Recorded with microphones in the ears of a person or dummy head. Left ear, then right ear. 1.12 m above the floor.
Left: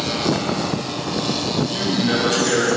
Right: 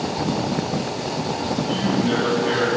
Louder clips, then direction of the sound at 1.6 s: Left 1 dB; centre (ahead or behind).